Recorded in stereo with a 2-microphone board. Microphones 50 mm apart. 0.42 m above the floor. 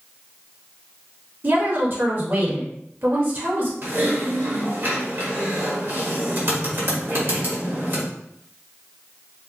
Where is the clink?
I don't hear a clink.